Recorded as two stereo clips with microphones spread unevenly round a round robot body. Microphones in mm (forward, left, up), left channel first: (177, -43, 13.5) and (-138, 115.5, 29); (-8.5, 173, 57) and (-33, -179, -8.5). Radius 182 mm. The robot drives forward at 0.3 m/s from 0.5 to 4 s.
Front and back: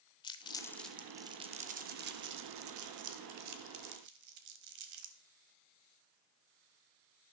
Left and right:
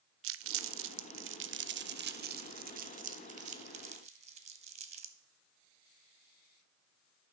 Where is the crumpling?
95° right, 0.5 m; by 5.2 s 160° right, 1.2 m.